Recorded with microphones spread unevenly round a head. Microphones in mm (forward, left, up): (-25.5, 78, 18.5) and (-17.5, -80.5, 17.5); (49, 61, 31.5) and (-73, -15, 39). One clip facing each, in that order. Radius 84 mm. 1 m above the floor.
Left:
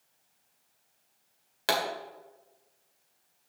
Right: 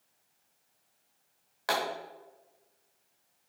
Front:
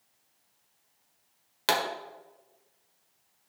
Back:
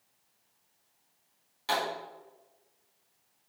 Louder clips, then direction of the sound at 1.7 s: Left 2 dB, front 3 dB; 30° left.